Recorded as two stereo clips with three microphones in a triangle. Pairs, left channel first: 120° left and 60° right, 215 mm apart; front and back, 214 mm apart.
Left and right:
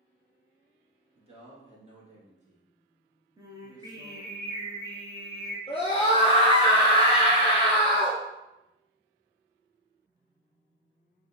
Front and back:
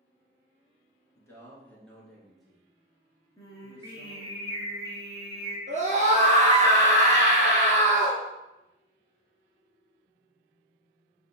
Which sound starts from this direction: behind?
A scream, at 5.7 s.